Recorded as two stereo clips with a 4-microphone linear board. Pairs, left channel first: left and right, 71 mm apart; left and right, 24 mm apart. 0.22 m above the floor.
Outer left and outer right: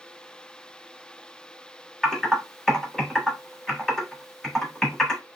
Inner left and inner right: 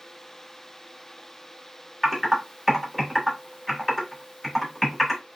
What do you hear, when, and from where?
2.0 s typing on a keyboard: 5° left (ahead or behind), 1.1 m